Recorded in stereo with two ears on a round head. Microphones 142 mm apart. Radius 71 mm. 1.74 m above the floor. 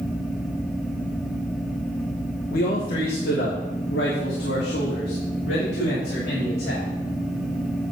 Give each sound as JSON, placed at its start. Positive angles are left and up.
{"t": 2.5, "sound": "a man speaking", "side_deg": 60, "distance_m": 1.3}